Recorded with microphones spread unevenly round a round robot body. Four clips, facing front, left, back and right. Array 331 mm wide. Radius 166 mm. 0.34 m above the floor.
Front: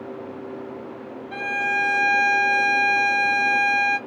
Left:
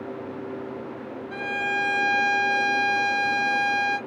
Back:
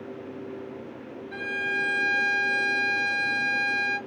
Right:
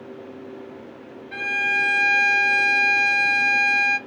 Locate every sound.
1.3 s a violin: 15° left, 1.1 m